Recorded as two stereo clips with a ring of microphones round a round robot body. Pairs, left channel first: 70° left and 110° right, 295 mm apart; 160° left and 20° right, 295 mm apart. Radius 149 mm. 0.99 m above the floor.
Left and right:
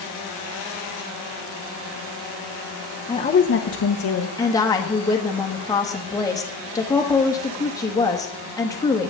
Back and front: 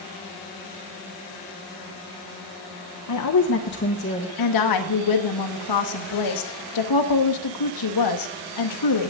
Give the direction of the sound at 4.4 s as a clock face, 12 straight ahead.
7 o'clock.